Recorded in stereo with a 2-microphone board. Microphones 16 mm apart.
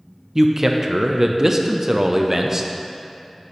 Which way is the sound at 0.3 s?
30° right (ahead or behind).